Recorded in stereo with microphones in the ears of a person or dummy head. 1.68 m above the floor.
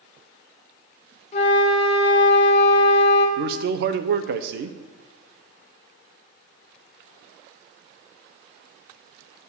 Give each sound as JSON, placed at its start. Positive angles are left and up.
{"t": 1.3, "sound": "a flute", "side_deg": 40, "distance_m": 1.2}
{"t": 3.4, "sound": "a man speaking", "side_deg": -55, "distance_m": 0.6}